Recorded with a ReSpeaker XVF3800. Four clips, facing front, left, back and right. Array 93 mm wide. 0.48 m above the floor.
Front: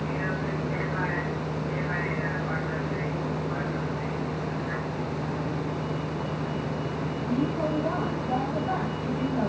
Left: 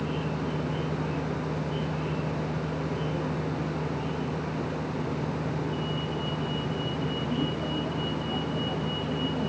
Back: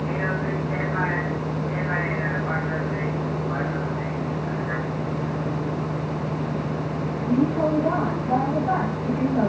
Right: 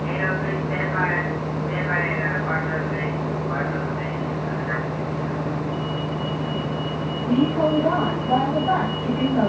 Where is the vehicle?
115° right.